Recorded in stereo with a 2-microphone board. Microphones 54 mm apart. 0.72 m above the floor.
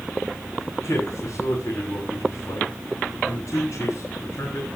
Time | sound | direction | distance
0.7 | a man speaking | 55° left (ahead or behind) | 6.5 m